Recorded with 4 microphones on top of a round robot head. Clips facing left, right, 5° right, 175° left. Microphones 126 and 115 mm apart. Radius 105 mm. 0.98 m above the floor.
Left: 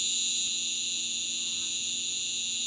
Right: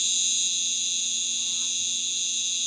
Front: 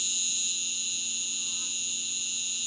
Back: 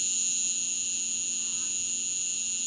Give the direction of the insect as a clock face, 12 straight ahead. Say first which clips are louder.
Right 1 dB, even; 2 o'clock.